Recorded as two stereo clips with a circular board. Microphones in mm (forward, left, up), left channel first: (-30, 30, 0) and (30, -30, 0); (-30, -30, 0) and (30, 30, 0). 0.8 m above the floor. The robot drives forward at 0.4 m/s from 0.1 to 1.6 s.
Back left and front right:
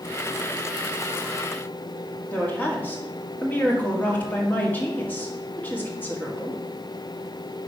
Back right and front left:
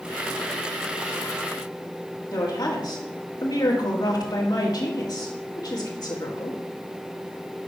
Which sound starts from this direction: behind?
A woman speaking, at 2.3 s.